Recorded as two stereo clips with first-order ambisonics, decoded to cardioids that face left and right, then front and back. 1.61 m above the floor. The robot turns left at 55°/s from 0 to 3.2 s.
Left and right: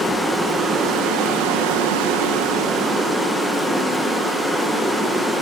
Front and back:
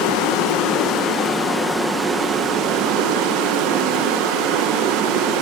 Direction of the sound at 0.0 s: 10° left.